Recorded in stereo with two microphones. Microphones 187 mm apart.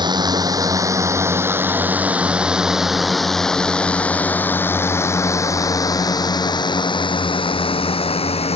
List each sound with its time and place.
0.0 s a drone: 25° right (ahead or behind); by 8.6 s 35° left (ahead or behind)